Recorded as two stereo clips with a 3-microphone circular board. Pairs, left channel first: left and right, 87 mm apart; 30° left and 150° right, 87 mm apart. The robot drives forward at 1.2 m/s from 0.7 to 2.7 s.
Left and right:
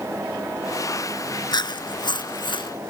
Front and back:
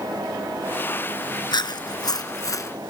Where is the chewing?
60° left; by 2.7 s 80° left.